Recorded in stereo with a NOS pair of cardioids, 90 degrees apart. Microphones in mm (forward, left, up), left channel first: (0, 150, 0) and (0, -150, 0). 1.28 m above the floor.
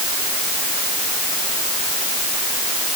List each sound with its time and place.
Only background noise.